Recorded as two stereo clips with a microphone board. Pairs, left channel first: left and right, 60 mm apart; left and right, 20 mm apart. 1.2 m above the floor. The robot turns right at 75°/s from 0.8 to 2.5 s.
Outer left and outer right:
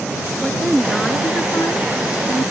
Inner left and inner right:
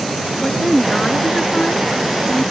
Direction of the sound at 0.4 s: 10° right.